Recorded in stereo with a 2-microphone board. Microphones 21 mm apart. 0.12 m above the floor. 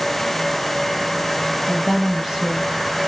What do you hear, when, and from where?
1.7 s a woman speaking: 25° right (ahead or behind), 3.5 m